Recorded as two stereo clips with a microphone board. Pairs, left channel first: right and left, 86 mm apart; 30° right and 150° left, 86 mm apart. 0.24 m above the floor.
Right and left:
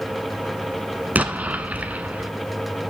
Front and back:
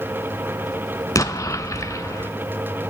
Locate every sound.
1.1 s an explosion: 20° left, 0.6 m